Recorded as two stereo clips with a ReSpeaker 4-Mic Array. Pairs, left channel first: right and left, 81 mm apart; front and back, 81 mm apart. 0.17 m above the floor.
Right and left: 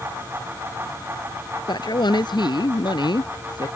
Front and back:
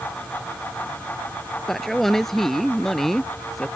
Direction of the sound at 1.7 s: 85° right.